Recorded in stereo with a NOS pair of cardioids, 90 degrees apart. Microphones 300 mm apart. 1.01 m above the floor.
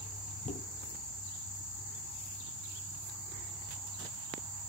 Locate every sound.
0.5 s dishes clattering: 20° left, 4 m